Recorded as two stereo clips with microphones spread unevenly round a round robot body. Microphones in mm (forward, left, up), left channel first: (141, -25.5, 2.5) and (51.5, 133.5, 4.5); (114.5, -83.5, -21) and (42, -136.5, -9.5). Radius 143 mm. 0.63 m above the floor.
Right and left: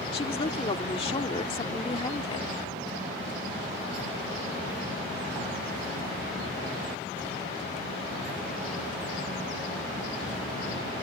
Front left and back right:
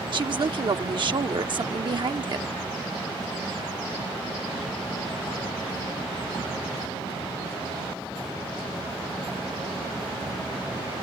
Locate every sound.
0.1 s a woman speaking: 120° right